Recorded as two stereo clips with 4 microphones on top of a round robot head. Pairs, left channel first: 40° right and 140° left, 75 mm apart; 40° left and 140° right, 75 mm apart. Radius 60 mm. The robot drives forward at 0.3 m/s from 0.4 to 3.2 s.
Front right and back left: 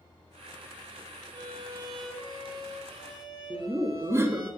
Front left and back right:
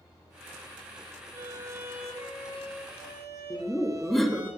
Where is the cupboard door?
No cupboard door in this recording.